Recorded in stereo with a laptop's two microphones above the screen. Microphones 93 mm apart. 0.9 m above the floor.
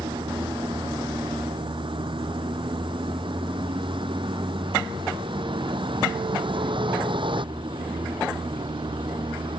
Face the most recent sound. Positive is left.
turn(degrees=-65)  # may be behind; listen again after turning